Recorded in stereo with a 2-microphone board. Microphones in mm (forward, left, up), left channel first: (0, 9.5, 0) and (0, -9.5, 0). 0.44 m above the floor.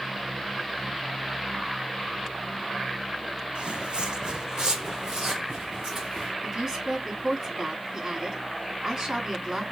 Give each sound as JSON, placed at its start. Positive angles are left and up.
{"t": 3.5, "sound": "footsteps", "side_deg": -60, "distance_m": 1.0}
{"t": 6.4, "sound": "a woman speaking", "side_deg": -25, "distance_m": 4.0}